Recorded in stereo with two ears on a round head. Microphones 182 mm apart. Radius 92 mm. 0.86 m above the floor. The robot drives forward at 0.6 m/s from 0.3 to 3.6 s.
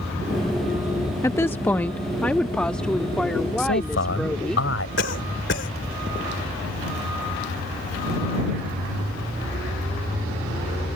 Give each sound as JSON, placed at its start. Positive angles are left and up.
{"t": 1.2, "sound": "a woman speaking", "side_deg": 15}
{"t": 3.6, "sound": "a man speaking", "side_deg": 60}
{"t": 5.0, "sound": "a cough", "side_deg": 55}